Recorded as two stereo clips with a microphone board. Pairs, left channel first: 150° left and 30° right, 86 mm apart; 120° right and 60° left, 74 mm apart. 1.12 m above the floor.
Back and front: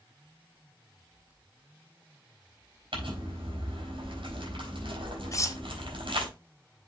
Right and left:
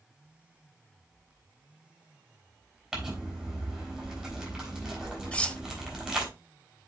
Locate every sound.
2.9 s crumpling: 20° right, 4 m
5.3 s cutlery clinking: 175° left, 0.5 m